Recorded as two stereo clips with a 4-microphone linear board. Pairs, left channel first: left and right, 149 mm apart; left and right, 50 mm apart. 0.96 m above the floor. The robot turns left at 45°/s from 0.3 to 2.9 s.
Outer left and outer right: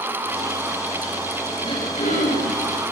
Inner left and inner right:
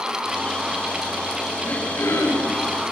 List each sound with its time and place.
1.6 s throat clearing: 150° left, 7 m; by 2.6 s 105° left, 7 m